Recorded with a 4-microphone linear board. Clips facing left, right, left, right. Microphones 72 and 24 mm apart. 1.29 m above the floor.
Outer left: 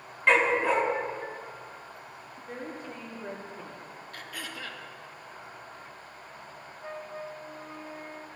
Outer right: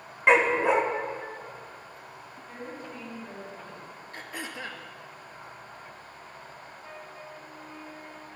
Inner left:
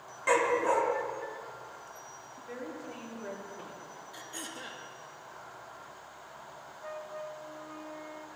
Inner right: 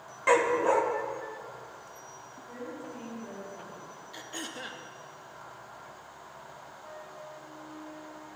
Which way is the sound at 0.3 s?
20° right (ahead or behind).